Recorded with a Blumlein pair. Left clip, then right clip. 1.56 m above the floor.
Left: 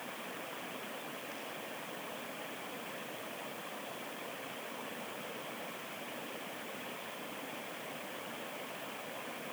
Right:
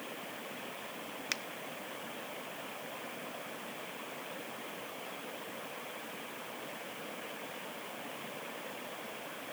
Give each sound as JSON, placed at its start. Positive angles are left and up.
{"t": 1.3, "sound": "a finger snap", "azimuth_deg": -50, "distance_m": 0.9}